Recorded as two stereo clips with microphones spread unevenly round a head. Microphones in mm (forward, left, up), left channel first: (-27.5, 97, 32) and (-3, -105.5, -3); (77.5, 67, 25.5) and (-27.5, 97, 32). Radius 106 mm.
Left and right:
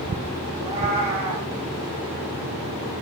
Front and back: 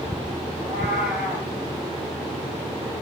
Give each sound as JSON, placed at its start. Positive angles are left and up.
{"t": 0.5, "sound": "a cat meowing", "azimuth_deg": -150, "distance_m": 7.0}